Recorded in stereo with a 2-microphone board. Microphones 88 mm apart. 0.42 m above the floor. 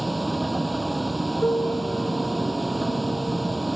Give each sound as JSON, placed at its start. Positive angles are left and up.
{"t": 0.0, "sound": "a vehicle", "side_deg": 0}
{"t": 1.4, "sound": "a piano", "side_deg": 40}